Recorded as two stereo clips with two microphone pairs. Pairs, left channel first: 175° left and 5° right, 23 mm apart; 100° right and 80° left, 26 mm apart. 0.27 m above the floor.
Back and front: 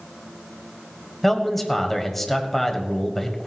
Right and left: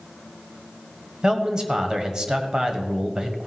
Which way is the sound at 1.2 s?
105° left.